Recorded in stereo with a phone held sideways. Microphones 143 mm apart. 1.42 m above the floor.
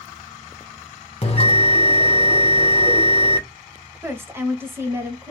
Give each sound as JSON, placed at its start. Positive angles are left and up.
{"t": 1.2, "sound": "a bell", "side_deg": 40, "distance_m": 0.8}
{"t": 4.0, "sound": "a woman speaking", "side_deg": -15, "distance_m": 0.8}